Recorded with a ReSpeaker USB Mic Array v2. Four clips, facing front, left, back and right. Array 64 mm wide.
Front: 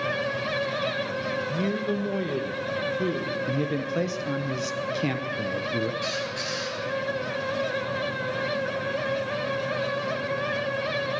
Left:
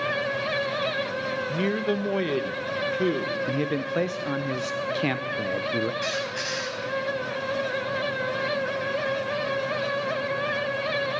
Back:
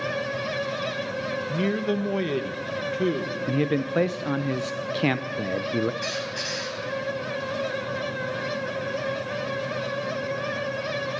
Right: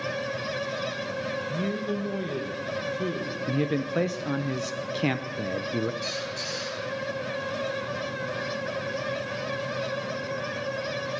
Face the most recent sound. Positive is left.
turn(degrees=125)